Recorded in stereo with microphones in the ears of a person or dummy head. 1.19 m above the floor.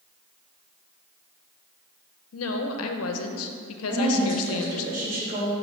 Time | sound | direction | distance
2.3 | a woman speaking | 75° left (ahead or behind) | 0.7 m
3.9 | a woman speaking | 50° right (ahead or behind) | 2 m